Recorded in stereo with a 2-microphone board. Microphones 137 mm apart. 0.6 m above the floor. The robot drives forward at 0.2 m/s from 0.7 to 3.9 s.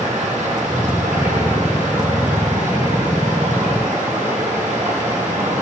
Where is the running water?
75° right (ahead or behind), 4 m; by 5.6 s 65° right (ahead or behind), 4 m.